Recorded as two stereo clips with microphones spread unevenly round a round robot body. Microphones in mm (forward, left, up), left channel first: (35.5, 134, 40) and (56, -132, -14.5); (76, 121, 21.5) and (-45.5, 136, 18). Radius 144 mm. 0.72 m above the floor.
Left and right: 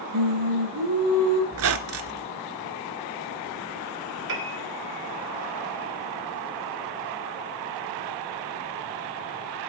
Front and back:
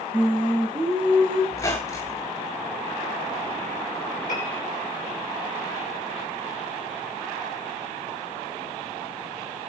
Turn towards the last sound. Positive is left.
turn(degrees=-50)